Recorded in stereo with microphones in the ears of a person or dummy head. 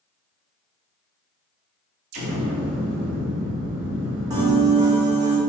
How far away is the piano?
About 1.1 m.